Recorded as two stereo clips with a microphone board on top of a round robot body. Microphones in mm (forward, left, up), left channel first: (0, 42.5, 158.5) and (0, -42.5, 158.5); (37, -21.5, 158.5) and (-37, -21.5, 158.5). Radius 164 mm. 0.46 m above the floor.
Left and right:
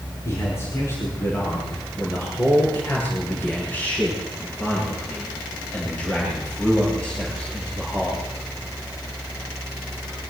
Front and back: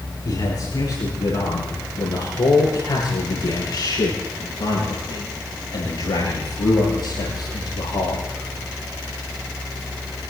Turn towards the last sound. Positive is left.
turn(degrees=10)